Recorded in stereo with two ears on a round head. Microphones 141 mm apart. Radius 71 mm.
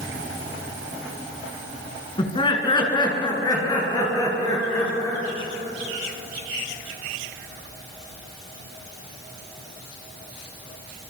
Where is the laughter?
30° left (ahead or behind), 5 m; by 5.2 s 20° left (ahead or behind), 9.5 m.